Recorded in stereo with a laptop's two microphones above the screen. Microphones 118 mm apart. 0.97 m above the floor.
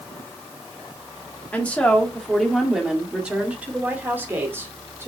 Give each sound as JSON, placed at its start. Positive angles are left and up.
{"t": 1.5, "sound": "a woman speaking", "side_deg": 15, "distance_m": 1.9}